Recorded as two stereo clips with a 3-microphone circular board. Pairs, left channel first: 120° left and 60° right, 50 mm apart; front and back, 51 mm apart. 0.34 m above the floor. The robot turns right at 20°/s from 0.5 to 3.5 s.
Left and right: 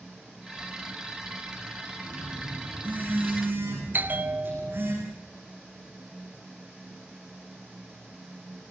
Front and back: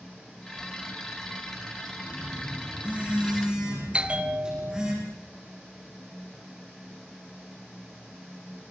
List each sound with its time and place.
2.0 s a phone buzzing: 135° right, 9 m; by 4.9 s 105° right, 9 m
3.9 s a bell: 115° right, 1.3 m